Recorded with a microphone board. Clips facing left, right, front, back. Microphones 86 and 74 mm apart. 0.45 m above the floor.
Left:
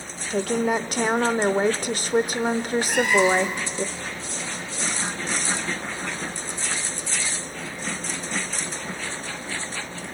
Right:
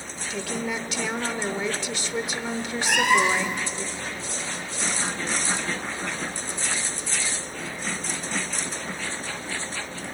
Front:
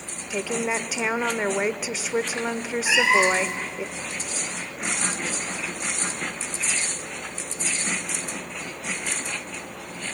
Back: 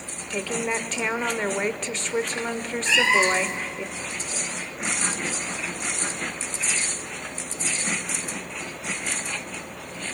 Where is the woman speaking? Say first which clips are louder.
Left 8 dB, front 1 dB; 80° left, 1.1 m.